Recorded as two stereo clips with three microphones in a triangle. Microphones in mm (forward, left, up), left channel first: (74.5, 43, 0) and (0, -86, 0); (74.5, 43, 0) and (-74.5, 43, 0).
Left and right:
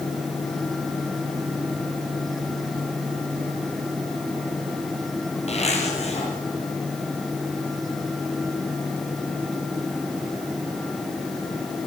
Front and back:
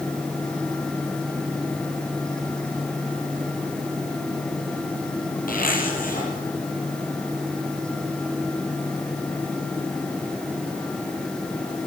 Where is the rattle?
I don't hear a rattle.